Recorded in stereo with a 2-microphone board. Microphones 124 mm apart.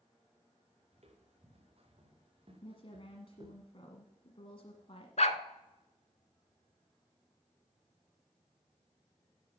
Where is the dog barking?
70° left (ahead or behind), 0.8 m.